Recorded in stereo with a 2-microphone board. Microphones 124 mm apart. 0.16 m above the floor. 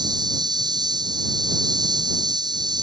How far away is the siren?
I don't hear a siren.